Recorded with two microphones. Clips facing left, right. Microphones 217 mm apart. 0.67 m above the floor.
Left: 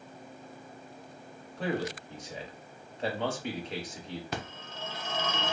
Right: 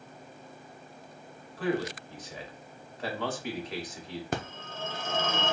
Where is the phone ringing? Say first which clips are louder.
Right 4 dB; 50° right (ahead or behind), 0.7 m.